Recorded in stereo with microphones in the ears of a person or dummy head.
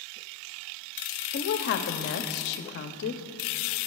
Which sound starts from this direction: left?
A woman speaking, at 1.3 s.